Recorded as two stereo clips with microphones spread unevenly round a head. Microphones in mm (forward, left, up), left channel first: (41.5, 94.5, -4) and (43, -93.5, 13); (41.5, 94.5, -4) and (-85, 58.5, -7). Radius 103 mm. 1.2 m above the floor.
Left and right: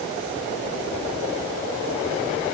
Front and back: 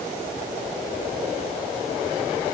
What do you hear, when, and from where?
Only background noise.